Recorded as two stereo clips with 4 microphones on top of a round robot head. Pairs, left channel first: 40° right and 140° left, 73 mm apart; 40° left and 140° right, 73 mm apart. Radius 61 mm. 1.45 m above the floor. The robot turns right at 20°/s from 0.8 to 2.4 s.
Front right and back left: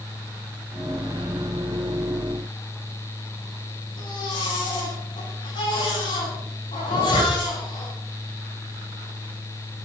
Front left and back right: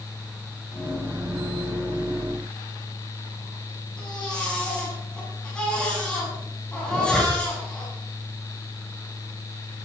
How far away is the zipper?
About 8 m.